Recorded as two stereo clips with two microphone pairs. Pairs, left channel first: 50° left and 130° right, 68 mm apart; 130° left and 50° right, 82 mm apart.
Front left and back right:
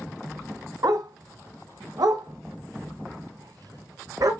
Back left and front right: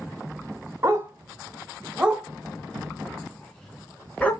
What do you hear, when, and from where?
0.8 s a dog barking: 100° right, 2 m; by 4.3 s 155° right, 3 m